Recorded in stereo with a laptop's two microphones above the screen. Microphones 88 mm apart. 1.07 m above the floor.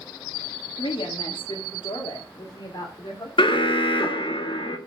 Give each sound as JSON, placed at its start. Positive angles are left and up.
{"t": 0.8, "sound": "a woman speaking", "side_deg": 85, "distance_m": 1.6}
{"t": 3.4, "sound": "an alarm", "side_deg": 70, "distance_m": 1.3}